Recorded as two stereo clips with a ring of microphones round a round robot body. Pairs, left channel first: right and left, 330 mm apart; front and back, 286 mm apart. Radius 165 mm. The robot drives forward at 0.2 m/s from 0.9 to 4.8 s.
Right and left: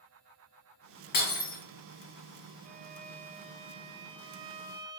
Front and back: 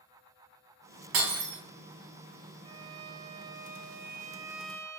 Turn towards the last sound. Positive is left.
turn(degrees=165)